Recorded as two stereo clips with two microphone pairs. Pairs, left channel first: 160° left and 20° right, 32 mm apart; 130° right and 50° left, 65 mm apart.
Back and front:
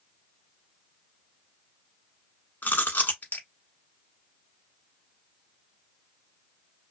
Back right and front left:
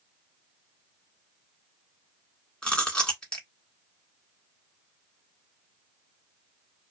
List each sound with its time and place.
2.6 s chewing: 150° left, 1.1 m